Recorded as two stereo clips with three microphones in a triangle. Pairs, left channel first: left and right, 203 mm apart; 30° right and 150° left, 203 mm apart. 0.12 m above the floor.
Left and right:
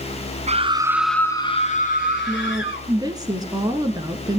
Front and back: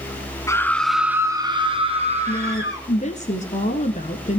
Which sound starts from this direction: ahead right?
A woman speaking, at 2.3 s.